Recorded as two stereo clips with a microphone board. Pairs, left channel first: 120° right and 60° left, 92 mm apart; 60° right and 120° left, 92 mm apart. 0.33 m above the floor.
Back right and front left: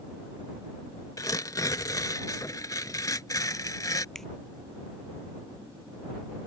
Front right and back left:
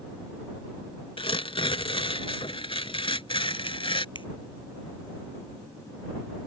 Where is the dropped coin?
I don't hear a dropped coin.